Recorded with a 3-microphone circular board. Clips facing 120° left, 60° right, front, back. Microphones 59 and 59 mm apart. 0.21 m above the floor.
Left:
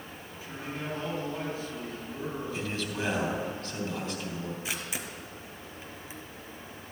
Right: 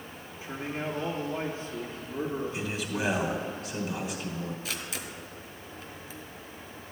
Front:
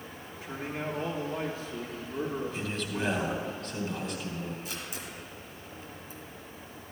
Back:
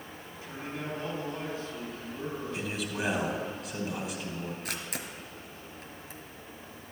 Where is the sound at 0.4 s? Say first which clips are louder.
Right 4 dB, front 3 dB; straight ahead, 3 m.